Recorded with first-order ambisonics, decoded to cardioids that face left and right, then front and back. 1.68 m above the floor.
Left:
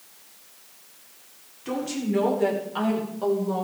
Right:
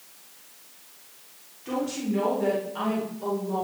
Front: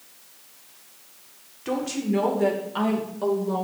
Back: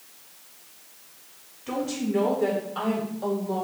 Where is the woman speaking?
15° left, 4 m; by 3.6 s 35° left, 5.5 m.